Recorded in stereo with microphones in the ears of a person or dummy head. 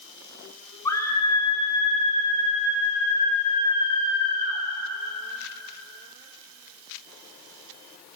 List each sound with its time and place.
0.8 s a scream: 20° left (ahead or behind), 6 m; by 4.6 s 35° left (ahead or behind), 9.5 m